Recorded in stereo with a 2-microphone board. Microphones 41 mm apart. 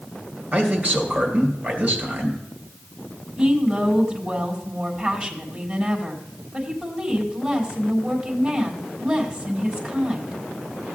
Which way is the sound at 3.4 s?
15° right (ahead or behind).